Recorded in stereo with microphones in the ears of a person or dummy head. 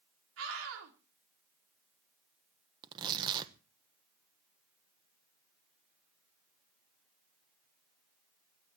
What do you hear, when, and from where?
0.4 s a scream: 85° right, 4.5 m
2.8 s tearing paper: 30° right (ahead or behind), 1.0 m